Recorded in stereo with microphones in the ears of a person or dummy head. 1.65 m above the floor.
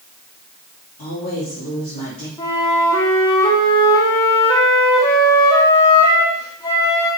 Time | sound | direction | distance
1.0 | a woman speaking | 40° left (ahead or behind) | 4 m
2.4 | a flute | 15° left (ahead or behind) | 1.3 m